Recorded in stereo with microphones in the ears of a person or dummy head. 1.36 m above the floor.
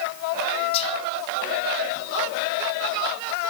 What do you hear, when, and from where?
0.7 s whispering: 35° left (ahead or behind), 2.5 m